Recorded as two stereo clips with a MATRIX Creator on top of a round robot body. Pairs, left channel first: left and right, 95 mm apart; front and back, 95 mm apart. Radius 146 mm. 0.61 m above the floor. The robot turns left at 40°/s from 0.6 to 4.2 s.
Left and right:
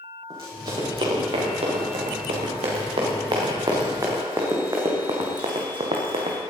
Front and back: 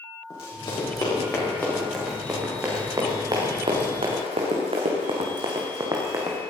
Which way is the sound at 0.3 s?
40° right.